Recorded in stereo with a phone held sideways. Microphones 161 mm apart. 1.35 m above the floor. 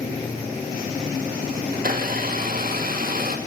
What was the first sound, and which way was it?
A blender, 65° right (ahead or behind).